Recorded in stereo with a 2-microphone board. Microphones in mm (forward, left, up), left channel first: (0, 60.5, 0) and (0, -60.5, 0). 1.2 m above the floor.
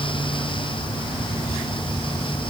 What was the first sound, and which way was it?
Only background noise.